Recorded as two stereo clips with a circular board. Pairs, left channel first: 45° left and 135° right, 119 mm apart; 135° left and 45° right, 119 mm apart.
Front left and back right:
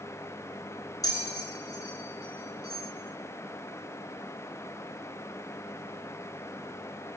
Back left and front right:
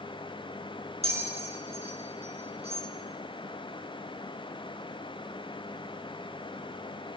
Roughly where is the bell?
Ahead.